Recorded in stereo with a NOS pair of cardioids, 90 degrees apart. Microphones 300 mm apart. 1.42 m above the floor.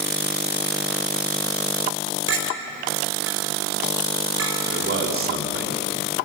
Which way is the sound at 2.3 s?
50° right.